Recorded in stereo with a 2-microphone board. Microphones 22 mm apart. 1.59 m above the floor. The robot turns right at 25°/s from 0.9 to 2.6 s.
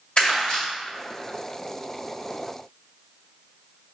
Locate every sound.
0.2 s crumpling: 50° left (ahead or behind), 2.0 m